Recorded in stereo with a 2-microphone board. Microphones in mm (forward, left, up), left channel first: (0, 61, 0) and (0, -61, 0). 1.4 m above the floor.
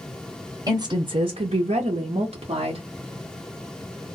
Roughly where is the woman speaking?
Right.